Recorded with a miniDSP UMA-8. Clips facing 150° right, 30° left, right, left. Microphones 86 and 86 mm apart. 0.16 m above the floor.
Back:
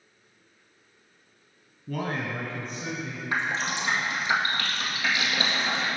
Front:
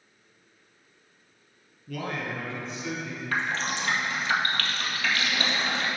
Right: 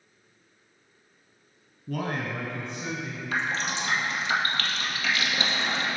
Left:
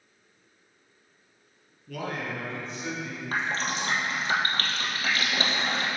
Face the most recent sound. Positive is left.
turn(degrees=140)